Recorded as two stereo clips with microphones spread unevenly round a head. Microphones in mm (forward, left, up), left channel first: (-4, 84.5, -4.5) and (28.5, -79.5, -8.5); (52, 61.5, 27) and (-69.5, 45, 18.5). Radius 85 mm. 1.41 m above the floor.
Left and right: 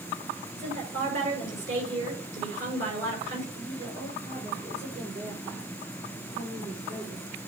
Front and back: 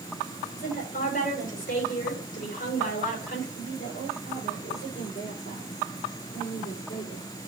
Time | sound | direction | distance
0.6 | a woman speaking | 30° right | 6 m
3.5 | a woman speaking | 30° right | 5 m